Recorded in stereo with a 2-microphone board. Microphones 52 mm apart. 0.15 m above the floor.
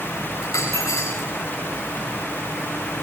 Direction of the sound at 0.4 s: 80° left.